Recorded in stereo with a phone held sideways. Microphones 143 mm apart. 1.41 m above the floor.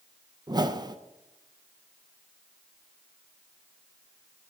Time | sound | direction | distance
0.5 | a whoosh | 30° right (ahead or behind) | 0.5 m